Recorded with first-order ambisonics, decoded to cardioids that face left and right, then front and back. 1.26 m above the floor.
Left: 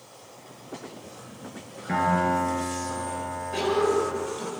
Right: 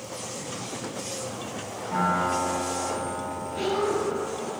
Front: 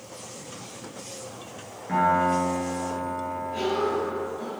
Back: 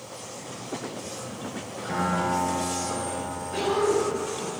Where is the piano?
95° left, 6 m.